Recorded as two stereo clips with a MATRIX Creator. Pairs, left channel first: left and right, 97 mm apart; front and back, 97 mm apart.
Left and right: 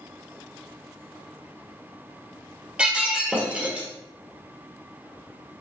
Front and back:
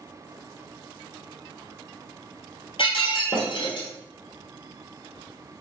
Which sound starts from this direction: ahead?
Breaking glass, at 2.8 s.